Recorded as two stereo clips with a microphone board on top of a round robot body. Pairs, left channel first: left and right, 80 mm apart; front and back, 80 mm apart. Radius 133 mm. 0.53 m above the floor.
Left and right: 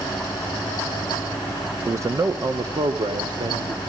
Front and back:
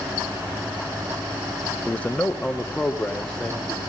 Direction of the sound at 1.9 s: 60° right.